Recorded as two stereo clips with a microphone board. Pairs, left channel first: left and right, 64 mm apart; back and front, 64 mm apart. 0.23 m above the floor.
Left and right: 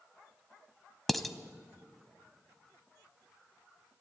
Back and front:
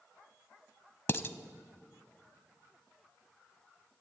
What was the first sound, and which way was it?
Dishes clattering, 175° left.